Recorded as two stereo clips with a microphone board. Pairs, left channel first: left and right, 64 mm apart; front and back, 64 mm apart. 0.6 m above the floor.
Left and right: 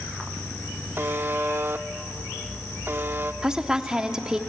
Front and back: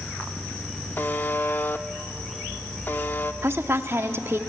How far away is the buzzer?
About 0.7 m.